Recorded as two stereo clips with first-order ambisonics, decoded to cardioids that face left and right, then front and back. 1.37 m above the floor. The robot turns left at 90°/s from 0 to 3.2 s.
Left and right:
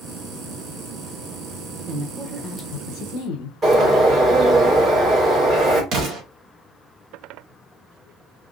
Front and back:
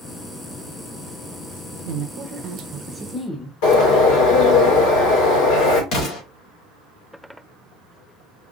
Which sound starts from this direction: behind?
A woman speaking, at 1.9 s.